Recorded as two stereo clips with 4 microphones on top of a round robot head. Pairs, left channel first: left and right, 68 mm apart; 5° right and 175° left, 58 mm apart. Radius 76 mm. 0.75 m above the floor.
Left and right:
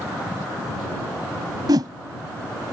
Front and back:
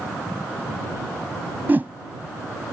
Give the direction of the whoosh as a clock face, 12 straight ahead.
4 o'clock.